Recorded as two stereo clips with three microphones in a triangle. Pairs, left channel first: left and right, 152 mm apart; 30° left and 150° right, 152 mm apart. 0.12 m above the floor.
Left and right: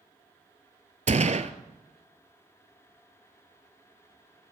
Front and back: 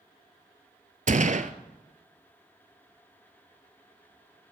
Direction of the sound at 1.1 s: 125° right.